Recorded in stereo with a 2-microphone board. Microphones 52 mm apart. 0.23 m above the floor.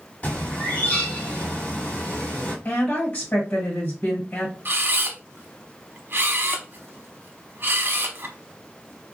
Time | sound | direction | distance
0.2 | a bird | 30° left (ahead or behind) | 1.6 m
2.6 | a woman speaking | 35° left (ahead or behind) | 1.3 m
4.7 | a camera shutter | 45° right (ahead or behind) | 0.7 m